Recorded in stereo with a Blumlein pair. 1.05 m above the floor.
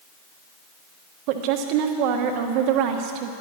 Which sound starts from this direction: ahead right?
A woman speaking, at 1.3 s.